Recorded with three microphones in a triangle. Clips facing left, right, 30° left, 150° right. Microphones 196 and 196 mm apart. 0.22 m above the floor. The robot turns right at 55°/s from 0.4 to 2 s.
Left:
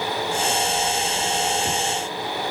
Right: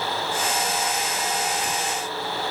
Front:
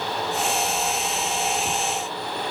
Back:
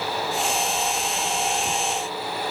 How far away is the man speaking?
I don't hear a man speaking.